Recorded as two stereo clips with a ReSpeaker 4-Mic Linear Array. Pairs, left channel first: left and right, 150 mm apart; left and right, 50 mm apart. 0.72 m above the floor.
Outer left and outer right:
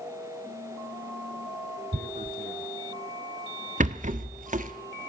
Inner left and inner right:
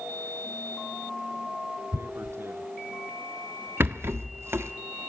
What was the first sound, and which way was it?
Tearing paper, 65° right (ahead or behind).